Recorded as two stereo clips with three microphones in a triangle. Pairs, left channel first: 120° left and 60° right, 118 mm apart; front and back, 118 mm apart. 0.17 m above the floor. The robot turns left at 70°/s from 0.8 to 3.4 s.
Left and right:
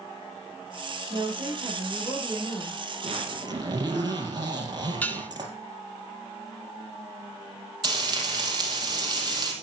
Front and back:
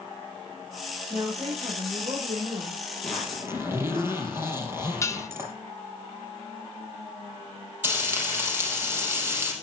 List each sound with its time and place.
1.1 s a woman speaking: 90° right, 6.5 m; by 2.8 s 150° left, 6.5 m
3.0 s a zipper: 85° right, 4 m; by 5.5 s 110° right, 4 m
5.0 s dishes clattering: 50° left, 1.2 m
7.8 s frying: 110° right, 4 m